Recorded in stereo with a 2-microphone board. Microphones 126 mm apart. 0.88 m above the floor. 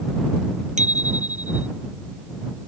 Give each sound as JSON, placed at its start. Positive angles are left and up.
{"t": 0.8, "sound": "a bicycle bell", "side_deg": -75}